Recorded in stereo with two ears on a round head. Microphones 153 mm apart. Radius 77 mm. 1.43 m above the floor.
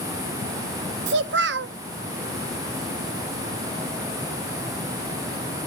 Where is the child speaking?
70° right (ahead or behind), 0.9 m.